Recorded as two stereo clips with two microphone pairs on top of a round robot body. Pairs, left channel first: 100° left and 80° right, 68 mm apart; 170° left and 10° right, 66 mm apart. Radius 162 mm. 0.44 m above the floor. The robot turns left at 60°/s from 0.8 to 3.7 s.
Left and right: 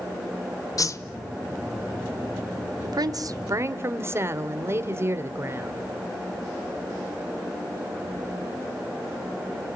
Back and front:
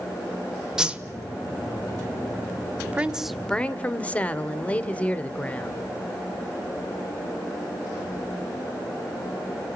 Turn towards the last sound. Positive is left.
turn(degrees=-130)